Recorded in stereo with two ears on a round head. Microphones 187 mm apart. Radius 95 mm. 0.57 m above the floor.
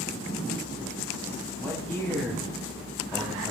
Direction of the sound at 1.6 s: 10° left (ahead or behind).